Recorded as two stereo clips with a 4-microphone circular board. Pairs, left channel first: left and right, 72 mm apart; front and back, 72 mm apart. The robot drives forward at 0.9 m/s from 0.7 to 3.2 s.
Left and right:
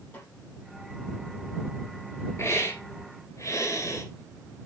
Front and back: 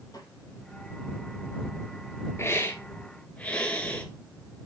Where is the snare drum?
25° left, 5 m.